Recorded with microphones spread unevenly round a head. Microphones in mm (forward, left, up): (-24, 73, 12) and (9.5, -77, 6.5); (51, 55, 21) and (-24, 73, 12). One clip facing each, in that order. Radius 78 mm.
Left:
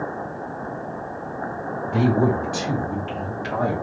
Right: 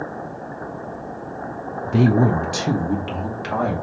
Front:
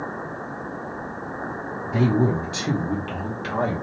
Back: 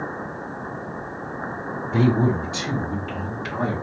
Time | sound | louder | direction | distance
1.9 | a man speaking | right 3 dB, back 1 dB | 105° right | 0.7 m